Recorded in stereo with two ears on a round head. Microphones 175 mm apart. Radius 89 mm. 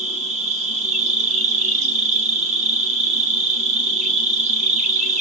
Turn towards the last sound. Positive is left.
turn(degrees=-35)  # may be behind; listen again after turning